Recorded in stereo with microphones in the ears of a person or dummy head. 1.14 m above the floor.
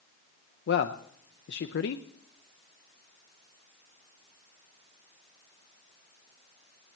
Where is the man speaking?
55° left (ahead or behind), 0.6 m.